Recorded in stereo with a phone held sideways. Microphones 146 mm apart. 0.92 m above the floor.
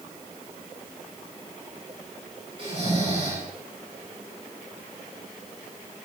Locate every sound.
2.6 s snoring: 35° right (ahead or behind), 9 m